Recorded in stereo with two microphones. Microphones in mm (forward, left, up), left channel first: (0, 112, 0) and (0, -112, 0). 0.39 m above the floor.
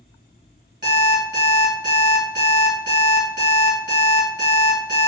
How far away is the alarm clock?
About 1.6 m.